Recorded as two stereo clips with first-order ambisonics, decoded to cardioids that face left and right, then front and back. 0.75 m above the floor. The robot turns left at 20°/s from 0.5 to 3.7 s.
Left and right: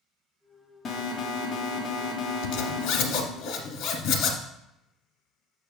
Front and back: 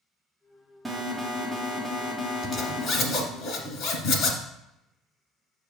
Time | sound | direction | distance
0.8 | an alarm | 100° left | 0.9 m
2.4 | a zipper | 70° left | 1.6 m